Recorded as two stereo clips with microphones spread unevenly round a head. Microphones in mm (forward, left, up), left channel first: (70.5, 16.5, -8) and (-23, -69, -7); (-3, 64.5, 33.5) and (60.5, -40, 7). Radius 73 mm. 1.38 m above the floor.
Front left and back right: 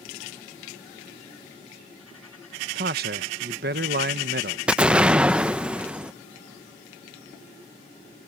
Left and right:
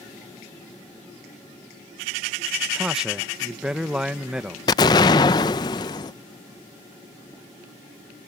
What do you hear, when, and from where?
2.8 s a man speaking: 145° right
4.7 s an explosion: 145° left